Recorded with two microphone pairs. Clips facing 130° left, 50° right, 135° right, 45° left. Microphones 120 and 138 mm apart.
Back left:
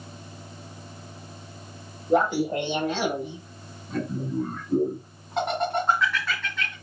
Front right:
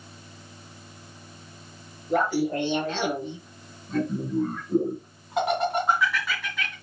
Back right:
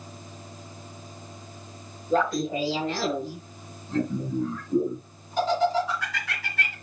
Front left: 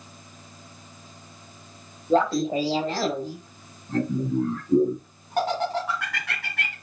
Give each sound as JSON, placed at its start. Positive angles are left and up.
{"t": 2.1, "sound": "laughter", "azimuth_deg": 80, "distance_m": 1.4}